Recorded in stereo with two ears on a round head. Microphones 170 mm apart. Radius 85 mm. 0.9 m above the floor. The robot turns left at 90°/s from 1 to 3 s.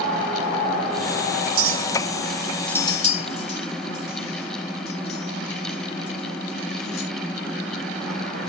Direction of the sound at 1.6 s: 85° right.